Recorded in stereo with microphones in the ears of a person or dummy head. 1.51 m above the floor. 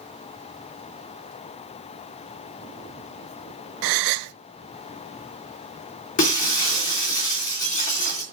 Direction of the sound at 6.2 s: 35° left (ahead or behind).